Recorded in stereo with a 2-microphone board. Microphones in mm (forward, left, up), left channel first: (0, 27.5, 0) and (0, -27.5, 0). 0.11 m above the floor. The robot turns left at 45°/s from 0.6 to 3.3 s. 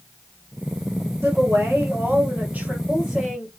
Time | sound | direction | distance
1.2 | a woman speaking | 80° right | 2 m